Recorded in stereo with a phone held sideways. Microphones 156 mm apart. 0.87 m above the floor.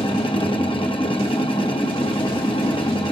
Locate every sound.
0.0 s a machine running: 30° left (ahead or behind), 0.9 m